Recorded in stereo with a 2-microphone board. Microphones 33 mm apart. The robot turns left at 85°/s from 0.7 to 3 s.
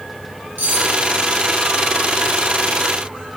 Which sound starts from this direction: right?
Cutlery clinking, at 0.6 s.